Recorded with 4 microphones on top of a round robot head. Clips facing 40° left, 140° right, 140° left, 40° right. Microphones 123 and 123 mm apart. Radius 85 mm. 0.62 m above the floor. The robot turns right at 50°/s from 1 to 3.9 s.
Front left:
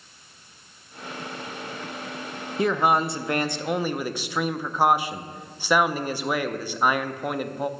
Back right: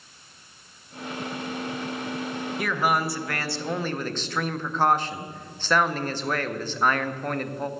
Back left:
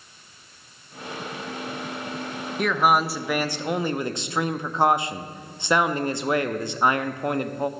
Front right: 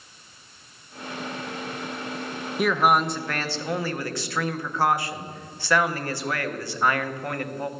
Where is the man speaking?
40° left, 0.6 m; by 7.7 s 105° left, 0.6 m.